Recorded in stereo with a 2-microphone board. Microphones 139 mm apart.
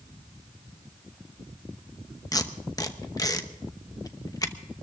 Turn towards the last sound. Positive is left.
turn(degrees=25)  # may be behind; listen again after turning